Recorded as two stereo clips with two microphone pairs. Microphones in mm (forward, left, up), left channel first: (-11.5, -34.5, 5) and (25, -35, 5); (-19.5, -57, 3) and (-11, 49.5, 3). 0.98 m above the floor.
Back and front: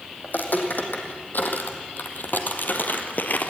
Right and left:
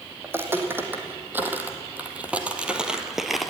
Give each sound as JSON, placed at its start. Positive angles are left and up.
{"t": 0.2, "sound": "footsteps", "azimuth_deg": 150, "distance_m": 3.0}